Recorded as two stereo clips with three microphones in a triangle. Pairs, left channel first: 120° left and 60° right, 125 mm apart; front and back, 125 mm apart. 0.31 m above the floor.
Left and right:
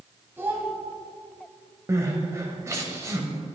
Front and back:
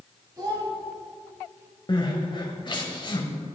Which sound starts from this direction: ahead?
Crying, at 1.9 s.